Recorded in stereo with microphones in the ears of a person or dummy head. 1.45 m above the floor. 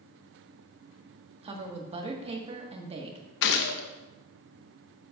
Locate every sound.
1.4 s a woman speaking: 35° right (ahead or behind), 1.7 m
3.4 s a gunshot: 60° left (ahead or behind), 0.9 m